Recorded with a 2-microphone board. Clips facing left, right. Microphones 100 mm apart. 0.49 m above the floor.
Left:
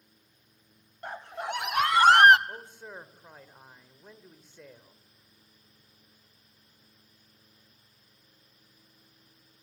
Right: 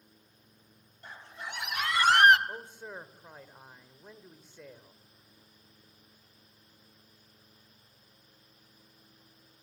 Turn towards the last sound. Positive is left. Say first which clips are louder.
# right 1 dB
turn(degrees=-10)  # may be behind; listen again after turning